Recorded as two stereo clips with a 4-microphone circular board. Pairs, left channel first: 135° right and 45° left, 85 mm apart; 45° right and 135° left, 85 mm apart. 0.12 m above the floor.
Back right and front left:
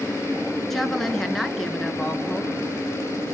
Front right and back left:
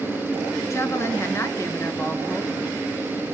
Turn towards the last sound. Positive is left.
turn(degrees=-50)